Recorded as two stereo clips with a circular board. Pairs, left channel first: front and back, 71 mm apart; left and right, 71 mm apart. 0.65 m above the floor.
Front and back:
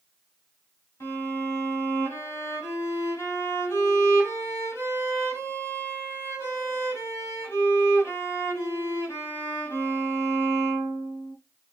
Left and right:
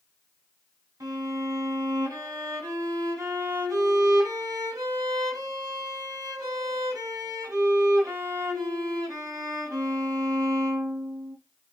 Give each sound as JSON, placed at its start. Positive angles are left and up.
{"t": 1.0, "sound": "a violin", "azimuth_deg": -55, "distance_m": 2.0}